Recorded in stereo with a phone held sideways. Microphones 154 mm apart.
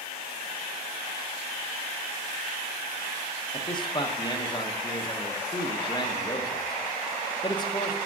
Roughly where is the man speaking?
Left.